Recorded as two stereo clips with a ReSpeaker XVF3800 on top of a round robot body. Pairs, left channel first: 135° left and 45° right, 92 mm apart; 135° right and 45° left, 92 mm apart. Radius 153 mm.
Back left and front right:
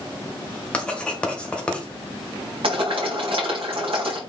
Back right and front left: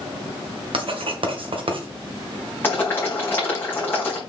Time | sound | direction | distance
0.7 | writing | 55° left | 2 m
2.6 | boiling | 65° right | 4.5 m